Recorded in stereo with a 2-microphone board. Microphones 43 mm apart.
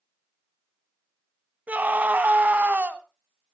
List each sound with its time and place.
1.7 s a scream: 40° right (ahead or behind), 1.3 m